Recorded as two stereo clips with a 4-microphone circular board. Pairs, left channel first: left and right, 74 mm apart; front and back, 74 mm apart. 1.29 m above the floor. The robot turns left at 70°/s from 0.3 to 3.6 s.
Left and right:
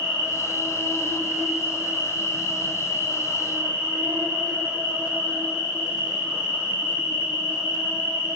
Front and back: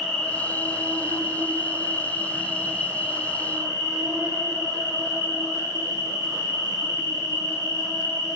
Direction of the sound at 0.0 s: 80° left.